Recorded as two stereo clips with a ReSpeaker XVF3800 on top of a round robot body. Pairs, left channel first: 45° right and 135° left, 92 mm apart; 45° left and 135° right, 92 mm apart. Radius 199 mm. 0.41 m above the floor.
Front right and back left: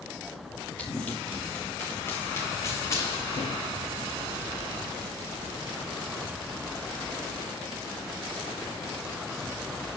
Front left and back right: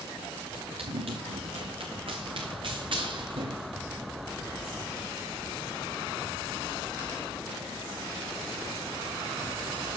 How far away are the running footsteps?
About 4.5 m.